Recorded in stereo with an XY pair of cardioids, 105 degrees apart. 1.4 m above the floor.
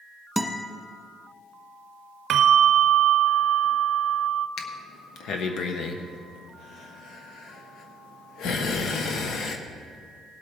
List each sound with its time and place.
0.4 s a guitar: 5° right, 1.3 m
2.3 s a bell: 70° right, 0.6 m
4.6 s breathing: 70° left, 1.1 m